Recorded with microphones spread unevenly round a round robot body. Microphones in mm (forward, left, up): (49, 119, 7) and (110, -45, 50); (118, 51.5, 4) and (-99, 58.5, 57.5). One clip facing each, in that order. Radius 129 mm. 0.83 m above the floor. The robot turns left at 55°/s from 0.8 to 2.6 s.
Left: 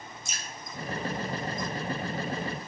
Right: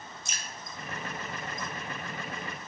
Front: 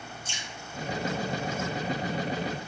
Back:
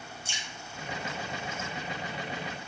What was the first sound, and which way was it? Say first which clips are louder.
Dripping: left 1 dB, front 2 dB; 90° right.